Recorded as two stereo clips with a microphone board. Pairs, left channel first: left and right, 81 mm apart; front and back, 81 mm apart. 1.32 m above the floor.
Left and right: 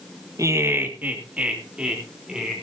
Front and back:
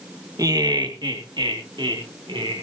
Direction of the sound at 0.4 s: 135° right.